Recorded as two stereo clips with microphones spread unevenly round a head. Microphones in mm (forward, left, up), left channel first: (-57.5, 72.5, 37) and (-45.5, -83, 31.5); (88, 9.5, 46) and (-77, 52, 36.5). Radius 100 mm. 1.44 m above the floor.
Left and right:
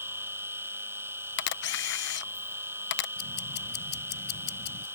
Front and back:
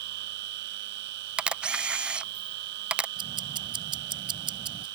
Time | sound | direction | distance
0.0 | a machine running | 160° right | ?
1.4 | a camera shutter | 80° left | ?
3.2 | ticking | 100° left | ?